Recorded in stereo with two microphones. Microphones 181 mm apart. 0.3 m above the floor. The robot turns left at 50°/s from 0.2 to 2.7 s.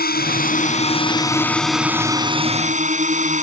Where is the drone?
75° left; by 3.4 s 50° right.